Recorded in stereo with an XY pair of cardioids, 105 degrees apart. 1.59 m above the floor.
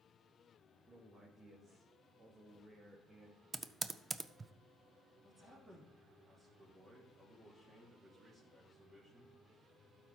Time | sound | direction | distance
0.9 | a man speaking | 30° right | 1.9 m
3.5 | typing on a keyboard | 25° right | 0.5 m
5.2 | a man speaking | 20° right | 3 m